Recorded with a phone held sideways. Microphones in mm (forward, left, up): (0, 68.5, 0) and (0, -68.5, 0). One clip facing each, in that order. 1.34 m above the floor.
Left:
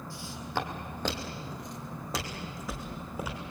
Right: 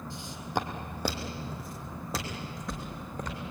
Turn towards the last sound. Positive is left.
turn(degrees=5)  # may be behind; listen again after turning